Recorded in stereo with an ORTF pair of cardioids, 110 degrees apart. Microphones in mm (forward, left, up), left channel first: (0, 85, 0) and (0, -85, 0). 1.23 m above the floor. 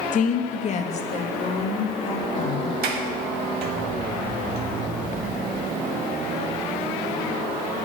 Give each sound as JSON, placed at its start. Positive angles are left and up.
{"t": 0.1, "sound": "a woman speaking", "azimuth_deg": 50, "distance_m": 1.0}
{"t": 2.8, "sound": "a sliding door", "azimuth_deg": -70, "distance_m": 1.9}